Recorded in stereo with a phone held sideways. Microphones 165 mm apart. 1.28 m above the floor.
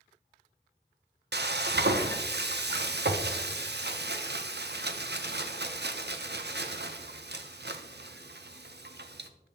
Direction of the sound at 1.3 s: 80° right.